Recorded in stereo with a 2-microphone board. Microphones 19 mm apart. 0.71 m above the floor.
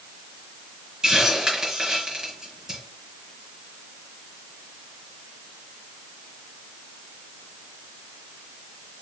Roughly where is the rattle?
No rattle in this recording.